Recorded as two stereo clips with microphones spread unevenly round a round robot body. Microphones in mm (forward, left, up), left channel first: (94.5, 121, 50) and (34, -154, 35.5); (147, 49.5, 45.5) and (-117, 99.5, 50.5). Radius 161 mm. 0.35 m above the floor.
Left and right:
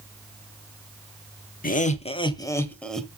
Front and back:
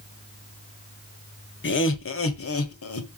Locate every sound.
1.6 s laughter: 20° left, 1.3 m; by 3.1 s 15° right, 1.5 m